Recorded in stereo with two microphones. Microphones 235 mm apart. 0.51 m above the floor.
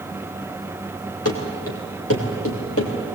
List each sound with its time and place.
1.2 s running footsteps: 80° left, 3.5 m; by 2.9 s 70° left (ahead or behind), 4.5 m